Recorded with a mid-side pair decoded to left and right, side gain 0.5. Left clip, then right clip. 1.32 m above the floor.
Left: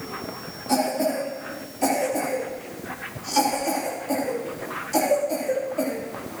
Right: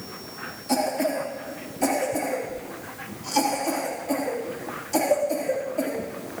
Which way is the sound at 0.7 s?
10° right.